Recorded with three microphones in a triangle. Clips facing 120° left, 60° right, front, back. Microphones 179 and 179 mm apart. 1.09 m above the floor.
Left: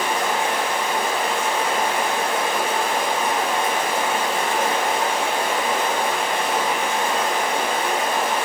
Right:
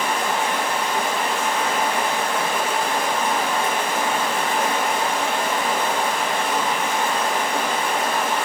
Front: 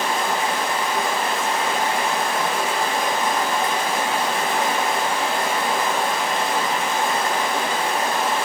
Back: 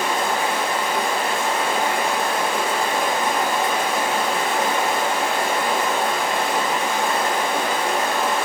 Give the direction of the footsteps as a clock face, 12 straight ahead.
I don't hear footsteps.